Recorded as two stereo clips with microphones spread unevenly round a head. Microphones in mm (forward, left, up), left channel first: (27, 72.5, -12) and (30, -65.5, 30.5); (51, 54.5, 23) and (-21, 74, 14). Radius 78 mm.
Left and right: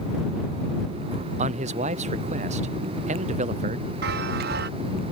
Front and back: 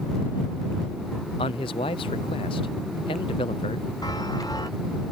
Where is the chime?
80° right.